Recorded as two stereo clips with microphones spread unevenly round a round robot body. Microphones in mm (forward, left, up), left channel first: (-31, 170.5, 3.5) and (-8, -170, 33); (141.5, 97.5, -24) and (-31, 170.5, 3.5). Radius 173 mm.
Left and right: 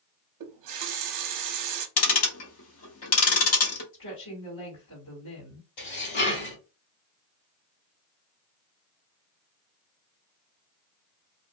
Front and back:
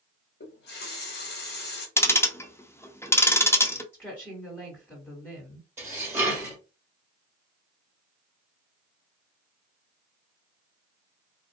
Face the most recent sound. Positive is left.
turn(degrees=75)